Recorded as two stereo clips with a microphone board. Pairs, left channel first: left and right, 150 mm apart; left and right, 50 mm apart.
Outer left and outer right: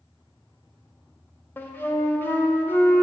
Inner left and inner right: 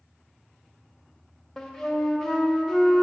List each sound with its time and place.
1.6 s a flute: 15° left (ahead or behind), 0.6 m